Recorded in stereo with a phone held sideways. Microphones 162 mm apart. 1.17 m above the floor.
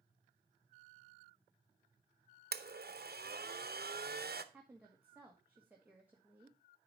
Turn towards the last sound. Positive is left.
turn(degrees=-10)  # may be behind; listen again after turning